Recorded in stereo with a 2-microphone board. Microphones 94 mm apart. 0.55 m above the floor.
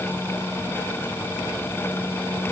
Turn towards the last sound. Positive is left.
No sound to turn to.